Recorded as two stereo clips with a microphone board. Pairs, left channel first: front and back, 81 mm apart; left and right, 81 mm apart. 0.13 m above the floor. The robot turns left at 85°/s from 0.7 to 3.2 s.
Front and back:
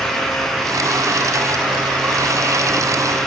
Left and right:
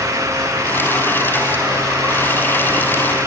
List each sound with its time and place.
Only background noise.